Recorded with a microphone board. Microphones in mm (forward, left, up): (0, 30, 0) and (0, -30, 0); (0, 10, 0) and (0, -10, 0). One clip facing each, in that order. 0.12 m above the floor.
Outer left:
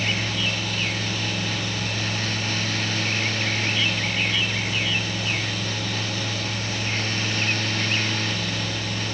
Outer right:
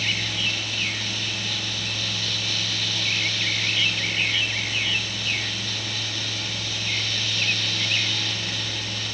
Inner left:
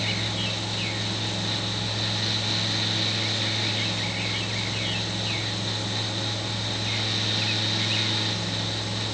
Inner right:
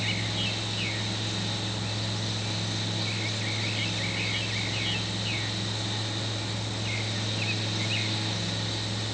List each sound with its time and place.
Only background noise.